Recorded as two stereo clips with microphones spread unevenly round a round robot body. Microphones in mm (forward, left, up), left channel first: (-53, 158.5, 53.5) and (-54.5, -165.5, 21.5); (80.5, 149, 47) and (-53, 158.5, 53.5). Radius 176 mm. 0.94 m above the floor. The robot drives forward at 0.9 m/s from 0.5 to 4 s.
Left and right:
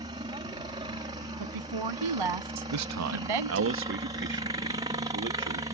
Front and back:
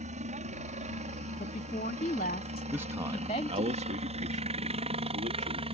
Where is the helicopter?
160° right.